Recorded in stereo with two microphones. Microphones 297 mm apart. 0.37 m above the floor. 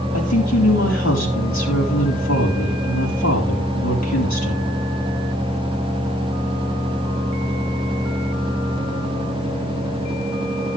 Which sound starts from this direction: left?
A woman speaking, at 0.1 s.